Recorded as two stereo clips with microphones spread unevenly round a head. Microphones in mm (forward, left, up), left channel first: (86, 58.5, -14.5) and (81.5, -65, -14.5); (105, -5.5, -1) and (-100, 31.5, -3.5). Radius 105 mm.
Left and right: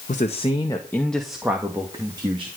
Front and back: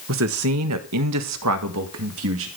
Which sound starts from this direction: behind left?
A man speaking, at 0.1 s.